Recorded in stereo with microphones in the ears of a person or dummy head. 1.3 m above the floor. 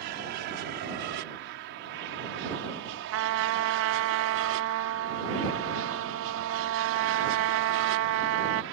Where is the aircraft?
50° right (ahead or behind); by 8.7 s 65° right (ahead or behind).